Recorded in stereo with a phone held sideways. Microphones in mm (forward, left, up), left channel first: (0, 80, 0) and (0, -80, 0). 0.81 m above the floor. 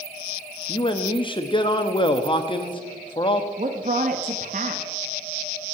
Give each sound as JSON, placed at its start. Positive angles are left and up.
{"t": 0.7, "sound": "a man speaking", "side_deg": 30, "distance_m": 0.8}
{"t": 3.6, "sound": "a woman speaking", "side_deg": -55, "distance_m": 0.8}